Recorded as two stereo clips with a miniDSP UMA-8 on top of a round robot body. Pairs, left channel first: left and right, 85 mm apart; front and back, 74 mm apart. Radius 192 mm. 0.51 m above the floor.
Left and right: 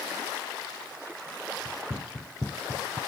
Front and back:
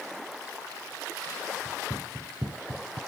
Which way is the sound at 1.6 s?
40° left.